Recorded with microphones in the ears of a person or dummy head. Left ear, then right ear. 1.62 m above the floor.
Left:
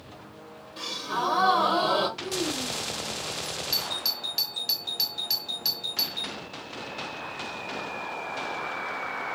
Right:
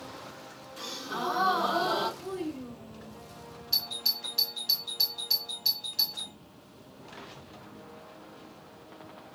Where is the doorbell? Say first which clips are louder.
Right 1 dB; 40° left (ahead or behind), 0.7 m.